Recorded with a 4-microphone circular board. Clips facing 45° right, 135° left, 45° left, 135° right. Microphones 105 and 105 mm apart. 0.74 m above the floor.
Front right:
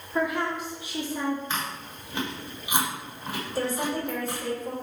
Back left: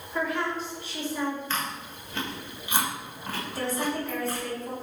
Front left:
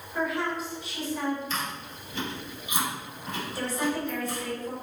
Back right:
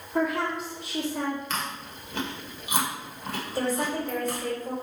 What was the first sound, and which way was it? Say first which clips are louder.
A woman speaking: front right 2 dB, back right 3 dB; 120° right.